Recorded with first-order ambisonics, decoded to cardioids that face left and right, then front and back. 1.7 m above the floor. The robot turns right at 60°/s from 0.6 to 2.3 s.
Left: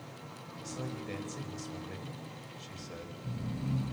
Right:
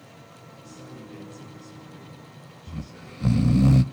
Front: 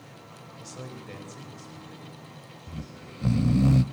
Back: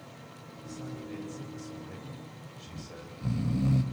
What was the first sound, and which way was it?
A man speaking, 25° left.